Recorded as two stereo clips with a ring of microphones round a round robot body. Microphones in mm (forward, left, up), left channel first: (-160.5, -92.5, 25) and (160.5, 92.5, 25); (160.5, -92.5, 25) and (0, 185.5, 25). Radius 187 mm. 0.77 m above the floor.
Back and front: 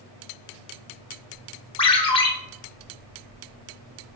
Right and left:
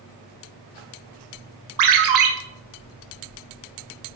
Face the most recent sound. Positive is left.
turn(degrees=135)